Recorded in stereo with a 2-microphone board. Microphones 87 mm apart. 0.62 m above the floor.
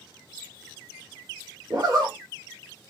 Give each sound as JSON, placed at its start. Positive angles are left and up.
{"t": 1.7, "sound": "a zipper", "side_deg": -45, "distance_m": 1.2}